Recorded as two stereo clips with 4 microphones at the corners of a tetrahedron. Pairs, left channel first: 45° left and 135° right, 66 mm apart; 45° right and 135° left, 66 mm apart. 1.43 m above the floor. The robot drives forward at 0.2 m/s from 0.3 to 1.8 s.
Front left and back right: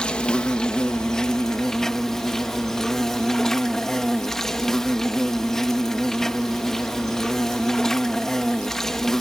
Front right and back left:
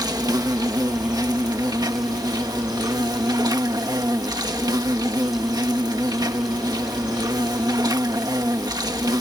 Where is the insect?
120° left; by 9.2 s 130° left.